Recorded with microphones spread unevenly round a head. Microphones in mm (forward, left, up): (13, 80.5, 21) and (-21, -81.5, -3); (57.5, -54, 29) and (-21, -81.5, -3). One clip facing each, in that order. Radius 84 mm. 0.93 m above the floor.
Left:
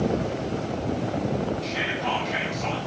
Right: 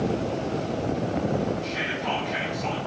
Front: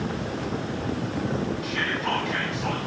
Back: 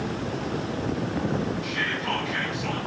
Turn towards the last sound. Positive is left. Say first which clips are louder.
# left 1 dB, front 1 dB
turn(degrees=75)